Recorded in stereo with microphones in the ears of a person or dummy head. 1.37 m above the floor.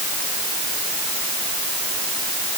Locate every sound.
Only background noise.